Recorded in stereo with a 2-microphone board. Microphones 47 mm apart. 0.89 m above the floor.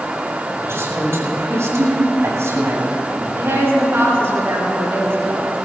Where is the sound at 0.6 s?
65° right (ahead or behind), 5.5 m; by 3.2 s 75° right (ahead or behind), 7 m.